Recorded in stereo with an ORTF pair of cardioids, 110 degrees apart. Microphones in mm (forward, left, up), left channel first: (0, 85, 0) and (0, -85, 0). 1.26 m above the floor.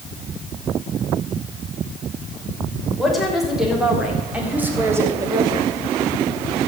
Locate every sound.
3.0 s a woman speaking: straight ahead, 5.5 m; by 5.7 s 30° right, 2.5 m